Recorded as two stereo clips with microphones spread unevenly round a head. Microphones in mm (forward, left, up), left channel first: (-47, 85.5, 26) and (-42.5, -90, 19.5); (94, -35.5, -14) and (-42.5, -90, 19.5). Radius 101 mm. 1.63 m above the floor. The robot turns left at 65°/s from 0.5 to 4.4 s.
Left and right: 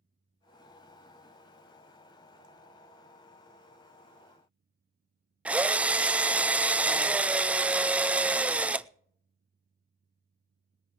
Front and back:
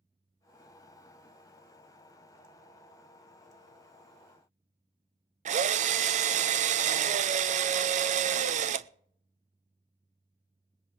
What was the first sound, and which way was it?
A drill, 170° right.